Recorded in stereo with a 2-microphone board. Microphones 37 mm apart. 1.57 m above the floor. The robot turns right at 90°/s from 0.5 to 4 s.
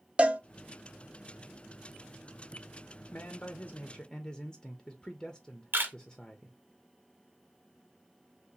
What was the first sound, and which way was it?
A cowbell, 30° right (ahead or behind).